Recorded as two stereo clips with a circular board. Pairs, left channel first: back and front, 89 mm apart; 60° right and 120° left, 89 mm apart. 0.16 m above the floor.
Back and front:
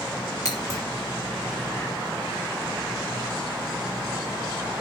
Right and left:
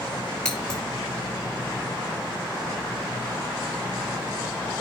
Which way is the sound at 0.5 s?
140° right.